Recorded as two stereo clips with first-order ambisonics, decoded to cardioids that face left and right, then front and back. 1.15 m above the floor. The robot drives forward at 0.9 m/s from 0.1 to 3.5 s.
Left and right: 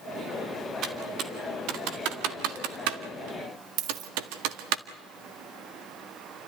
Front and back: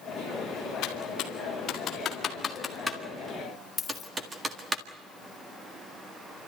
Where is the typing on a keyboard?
35° right, 2.5 m; by 4.8 s 100° right, 1.7 m.